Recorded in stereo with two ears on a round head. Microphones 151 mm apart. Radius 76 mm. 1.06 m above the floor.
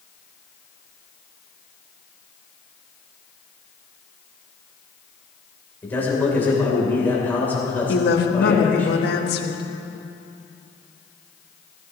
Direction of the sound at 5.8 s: 10° left (ahead or behind).